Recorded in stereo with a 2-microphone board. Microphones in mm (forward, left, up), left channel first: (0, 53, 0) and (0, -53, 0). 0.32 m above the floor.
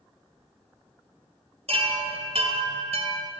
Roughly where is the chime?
Right.